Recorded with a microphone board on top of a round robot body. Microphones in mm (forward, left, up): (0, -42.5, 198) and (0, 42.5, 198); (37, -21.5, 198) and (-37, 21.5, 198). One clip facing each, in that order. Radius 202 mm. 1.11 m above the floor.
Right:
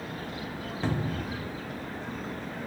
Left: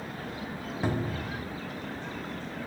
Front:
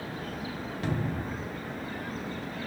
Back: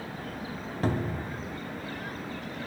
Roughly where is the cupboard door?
Behind.